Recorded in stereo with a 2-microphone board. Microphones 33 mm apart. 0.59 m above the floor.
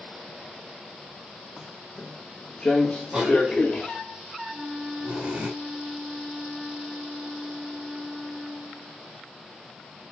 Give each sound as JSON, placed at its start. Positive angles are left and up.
{"t": 1.6, "sound": "footsteps", "side_deg": 0, "distance_m": 1.7}
{"t": 3.1, "sound": "a cough", "side_deg": -35, "distance_m": 4.5}
{"t": 4.5, "sound": "a flute", "side_deg": -15, "distance_m": 1.9}